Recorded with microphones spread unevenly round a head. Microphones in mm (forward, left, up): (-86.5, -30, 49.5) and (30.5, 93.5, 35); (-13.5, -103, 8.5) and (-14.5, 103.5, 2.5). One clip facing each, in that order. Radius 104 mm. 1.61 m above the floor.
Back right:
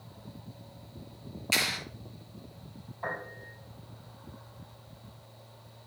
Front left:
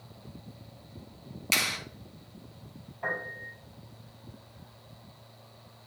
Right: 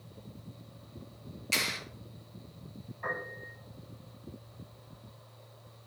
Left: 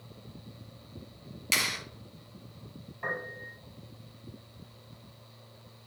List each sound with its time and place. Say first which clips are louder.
1.5 s a clap: back right 1 dB, even; 70° left, 3 m
3.0 s a piano: front left 1 dB, left 2 dB; 120° left, 5.5 m